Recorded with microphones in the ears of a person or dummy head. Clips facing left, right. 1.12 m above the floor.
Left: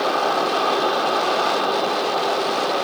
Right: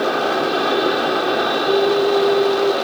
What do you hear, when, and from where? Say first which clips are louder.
0.0 s an aircraft: right 2 dB; 20° right (ahead or behind)
1.6 s a flute: right 7 dB; 75° right (ahead or behind)